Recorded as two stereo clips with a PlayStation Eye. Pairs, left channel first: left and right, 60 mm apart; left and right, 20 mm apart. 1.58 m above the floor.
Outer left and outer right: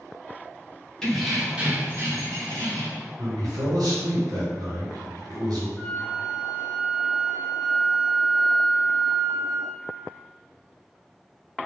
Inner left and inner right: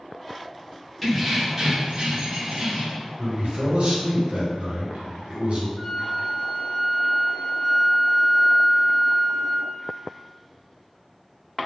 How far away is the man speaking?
About 1.1 m.